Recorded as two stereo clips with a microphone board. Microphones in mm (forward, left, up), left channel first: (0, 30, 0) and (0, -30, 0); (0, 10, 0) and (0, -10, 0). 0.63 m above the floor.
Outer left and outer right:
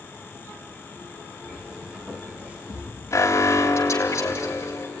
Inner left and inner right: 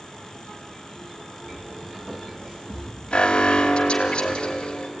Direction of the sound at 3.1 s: 50° left (ahead or behind).